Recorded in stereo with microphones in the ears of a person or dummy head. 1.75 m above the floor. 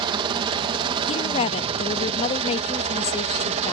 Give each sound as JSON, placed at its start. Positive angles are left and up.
{"t": 0.0, "sound": "a helicopter", "side_deg": -30}
{"t": 1.1, "sound": "a woman speaking", "side_deg": 30}